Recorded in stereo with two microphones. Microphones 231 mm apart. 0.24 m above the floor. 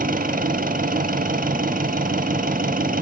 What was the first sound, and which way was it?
An engine running, 35° right (ahead or behind).